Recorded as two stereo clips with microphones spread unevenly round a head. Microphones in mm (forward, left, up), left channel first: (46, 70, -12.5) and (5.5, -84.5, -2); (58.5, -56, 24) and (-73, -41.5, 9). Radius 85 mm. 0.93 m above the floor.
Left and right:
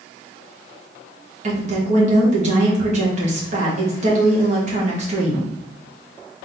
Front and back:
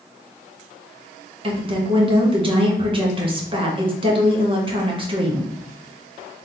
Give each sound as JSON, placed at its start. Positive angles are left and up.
{"t": 1.4, "sound": "a woman speaking", "azimuth_deg": -150, "distance_m": 1.5}